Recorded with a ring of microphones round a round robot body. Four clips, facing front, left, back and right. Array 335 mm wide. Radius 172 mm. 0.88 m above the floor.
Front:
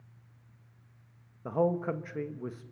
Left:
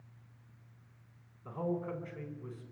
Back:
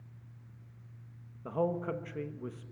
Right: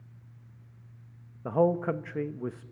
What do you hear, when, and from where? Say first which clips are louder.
1.4 s a man speaking: right 11 dB, front 4 dB; 75° right, 1.2 m